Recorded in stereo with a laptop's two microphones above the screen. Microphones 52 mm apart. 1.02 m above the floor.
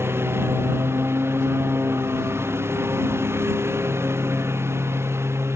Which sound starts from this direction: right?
A lawn mower, at 0.0 s.